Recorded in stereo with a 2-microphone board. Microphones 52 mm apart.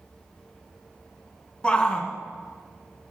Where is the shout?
20° left (ahead or behind), 1.7 m.